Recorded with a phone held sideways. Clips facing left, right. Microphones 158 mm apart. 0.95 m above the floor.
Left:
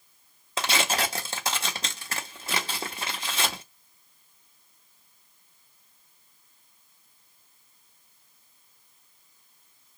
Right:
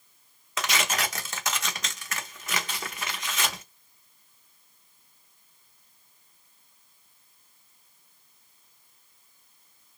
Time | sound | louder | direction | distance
0.6 | tearing paper | left 2 dB | 30° left (ahead or behind) | 0.8 m